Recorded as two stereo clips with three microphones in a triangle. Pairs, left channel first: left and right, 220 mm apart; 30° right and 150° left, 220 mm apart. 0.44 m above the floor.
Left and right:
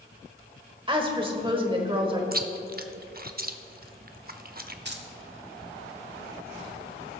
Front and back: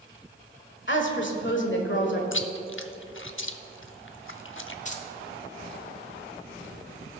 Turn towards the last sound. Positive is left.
turn(degrees=-75)